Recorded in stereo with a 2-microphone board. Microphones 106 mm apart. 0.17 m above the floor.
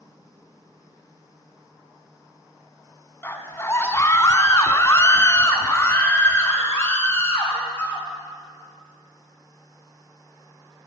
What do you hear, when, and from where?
3.2 s a scream: 20° left (ahead or behind), 1.2 m